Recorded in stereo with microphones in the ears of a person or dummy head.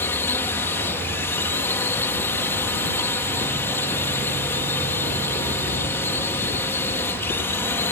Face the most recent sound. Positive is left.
turn(degrees=15)  # may be behind; listen again after turning